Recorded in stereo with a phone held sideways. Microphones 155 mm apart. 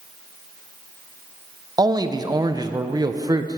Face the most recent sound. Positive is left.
turn(degrees=-25)  # may be behind; listen again after turning